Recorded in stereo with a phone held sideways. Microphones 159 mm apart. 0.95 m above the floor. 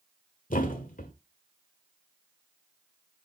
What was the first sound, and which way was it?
A thud, 60° left (ahead or behind).